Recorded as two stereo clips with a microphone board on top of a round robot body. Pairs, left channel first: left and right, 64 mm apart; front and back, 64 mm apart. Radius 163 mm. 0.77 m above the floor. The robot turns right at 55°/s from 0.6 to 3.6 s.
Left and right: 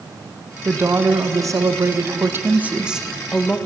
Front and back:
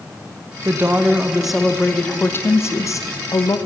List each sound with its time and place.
0.7 s a woman speaking: 140° right, 1.1 m; by 3.6 s 20° left, 1.1 m